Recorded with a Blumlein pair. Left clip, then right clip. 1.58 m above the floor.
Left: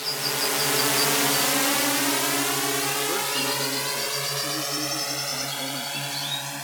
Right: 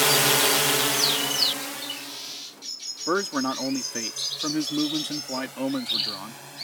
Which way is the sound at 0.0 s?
35° right.